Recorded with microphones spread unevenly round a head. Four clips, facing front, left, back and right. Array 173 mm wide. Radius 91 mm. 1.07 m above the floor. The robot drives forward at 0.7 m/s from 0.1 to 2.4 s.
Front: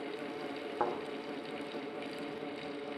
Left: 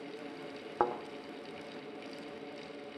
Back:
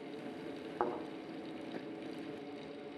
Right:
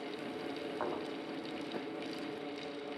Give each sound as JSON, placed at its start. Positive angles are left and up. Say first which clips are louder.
{"t": 0.8, "sound": "a thud", "louder": "left 8 dB, front 2 dB", "azimuth_deg": 90, "distance_m": 1.4}